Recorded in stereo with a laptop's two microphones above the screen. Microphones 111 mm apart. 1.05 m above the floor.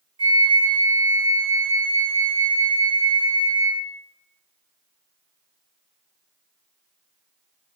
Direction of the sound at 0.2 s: 45° right (ahead or behind).